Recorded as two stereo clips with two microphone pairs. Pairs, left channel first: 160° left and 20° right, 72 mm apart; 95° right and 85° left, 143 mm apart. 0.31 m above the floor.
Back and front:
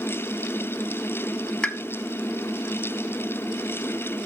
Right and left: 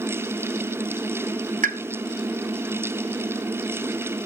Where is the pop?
85° left, 0.7 m.